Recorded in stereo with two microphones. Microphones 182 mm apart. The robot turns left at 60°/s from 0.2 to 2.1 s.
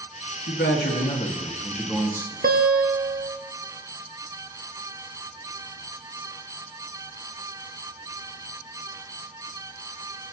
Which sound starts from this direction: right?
A guitar, at 2.4 s.